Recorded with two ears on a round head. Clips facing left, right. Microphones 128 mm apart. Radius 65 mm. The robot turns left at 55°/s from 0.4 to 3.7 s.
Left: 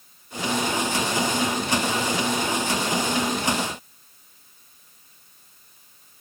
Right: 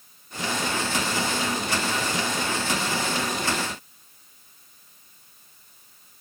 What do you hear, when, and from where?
Only background noise.